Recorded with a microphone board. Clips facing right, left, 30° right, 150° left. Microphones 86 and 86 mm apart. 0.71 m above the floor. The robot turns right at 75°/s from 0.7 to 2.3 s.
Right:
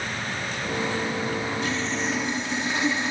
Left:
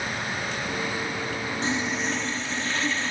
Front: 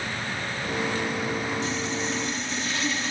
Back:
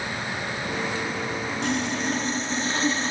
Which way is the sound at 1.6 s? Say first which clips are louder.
Even, back 3 dB; 145° left.